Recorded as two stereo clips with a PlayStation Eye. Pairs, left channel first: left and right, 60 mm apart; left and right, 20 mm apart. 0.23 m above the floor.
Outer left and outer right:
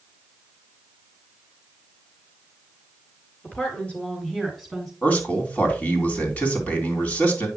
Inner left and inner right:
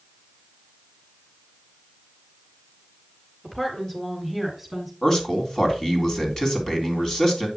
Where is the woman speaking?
25° left (ahead or behind), 3.5 m; by 4.9 s centre (ahead or behind), 3.5 m.